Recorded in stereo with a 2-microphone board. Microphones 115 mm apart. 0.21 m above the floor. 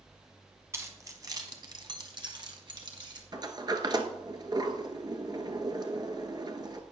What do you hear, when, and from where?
0.7 s keys jangling: 25° right (ahead or behind), 1.5 m; by 3.2 s 40° right (ahead or behind), 1.9 m
3.3 s a sliding door: 40° right (ahead or behind), 1.1 m